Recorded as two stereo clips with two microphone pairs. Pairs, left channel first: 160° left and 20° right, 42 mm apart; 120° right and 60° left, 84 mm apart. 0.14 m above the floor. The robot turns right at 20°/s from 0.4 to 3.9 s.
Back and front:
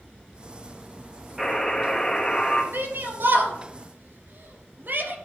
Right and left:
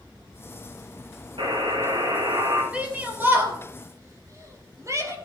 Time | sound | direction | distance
1.4 | a buzzer | 60° left | 5 m
2.7 | a shout | 10° right | 3.5 m